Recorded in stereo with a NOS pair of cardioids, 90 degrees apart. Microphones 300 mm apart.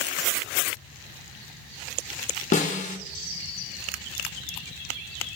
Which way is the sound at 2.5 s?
25° left.